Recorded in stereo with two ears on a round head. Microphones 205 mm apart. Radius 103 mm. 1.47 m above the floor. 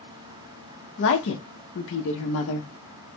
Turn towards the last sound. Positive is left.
turn(degrees=60)  # may be behind; listen again after turning